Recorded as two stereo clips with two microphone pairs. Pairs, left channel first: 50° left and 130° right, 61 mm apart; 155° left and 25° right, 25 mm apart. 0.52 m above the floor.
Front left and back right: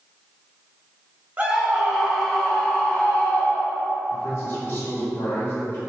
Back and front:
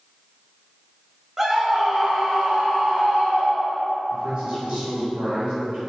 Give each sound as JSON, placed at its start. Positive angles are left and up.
{"t": 1.4, "sound": "a scream", "azimuth_deg": -80, "distance_m": 0.9}
{"t": 4.1, "sound": "a man speaking", "azimuth_deg": 15, "distance_m": 1.8}